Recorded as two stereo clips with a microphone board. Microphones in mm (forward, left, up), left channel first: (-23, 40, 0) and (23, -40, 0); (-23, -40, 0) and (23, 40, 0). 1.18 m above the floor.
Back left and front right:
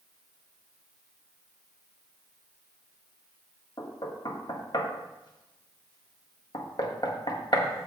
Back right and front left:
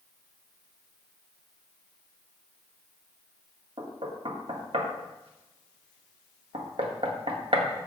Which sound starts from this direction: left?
Knocking, at 3.8 s.